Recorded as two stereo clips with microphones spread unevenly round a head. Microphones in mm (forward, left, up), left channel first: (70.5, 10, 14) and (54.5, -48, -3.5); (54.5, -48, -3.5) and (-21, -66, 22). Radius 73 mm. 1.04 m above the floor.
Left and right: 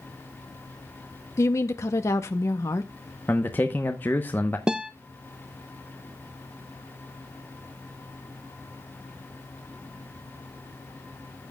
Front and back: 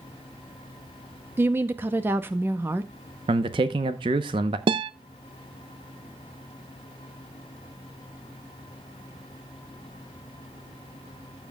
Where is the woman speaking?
115° left, 0.6 m.